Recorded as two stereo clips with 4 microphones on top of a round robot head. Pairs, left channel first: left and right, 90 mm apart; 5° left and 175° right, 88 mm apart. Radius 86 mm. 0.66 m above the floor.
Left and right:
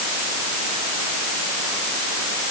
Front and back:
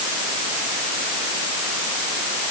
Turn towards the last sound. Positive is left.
No sound to turn to.